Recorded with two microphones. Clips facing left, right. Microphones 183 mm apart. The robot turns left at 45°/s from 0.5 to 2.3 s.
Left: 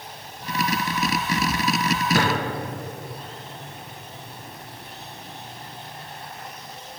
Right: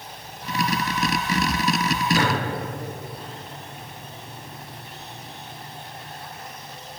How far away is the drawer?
About 1.4 m.